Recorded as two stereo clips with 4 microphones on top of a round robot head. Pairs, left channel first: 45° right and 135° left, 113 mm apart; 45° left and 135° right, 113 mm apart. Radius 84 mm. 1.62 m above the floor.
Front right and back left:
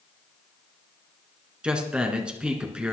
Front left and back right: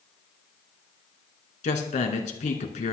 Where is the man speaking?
55° left, 2.5 m.